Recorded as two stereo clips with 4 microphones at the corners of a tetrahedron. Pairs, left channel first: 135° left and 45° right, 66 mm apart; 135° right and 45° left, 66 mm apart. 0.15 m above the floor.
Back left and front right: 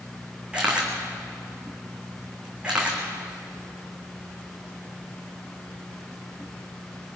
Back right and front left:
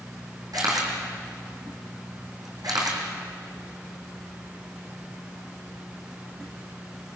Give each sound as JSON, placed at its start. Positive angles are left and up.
{"t": 0.5, "sound": "a camera shutter", "azimuth_deg": 30, "distance_m": 4.5}